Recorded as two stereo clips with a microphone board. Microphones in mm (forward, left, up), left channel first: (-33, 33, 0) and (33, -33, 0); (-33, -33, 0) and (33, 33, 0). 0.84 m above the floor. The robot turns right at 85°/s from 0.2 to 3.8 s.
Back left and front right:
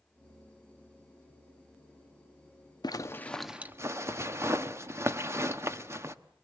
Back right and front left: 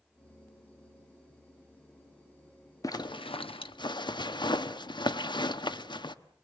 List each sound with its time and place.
2.8 s a zipper: 175° left, 0.9 m; by 6.1 s 105° right, 0.9 m